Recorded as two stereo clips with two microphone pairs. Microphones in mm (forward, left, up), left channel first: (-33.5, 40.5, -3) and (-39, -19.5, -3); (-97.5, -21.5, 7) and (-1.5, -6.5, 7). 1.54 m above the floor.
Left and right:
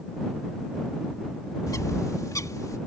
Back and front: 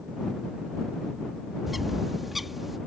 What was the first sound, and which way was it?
A bird, 100° left.